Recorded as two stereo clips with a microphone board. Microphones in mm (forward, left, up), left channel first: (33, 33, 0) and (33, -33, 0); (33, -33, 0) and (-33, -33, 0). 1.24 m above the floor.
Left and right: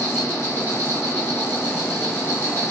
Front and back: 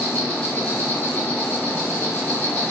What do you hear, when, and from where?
0.0 s an insect: 65° left, 1.6 m